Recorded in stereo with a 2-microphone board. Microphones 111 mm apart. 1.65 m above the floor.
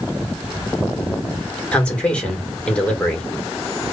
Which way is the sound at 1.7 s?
10° left (ahead or behind).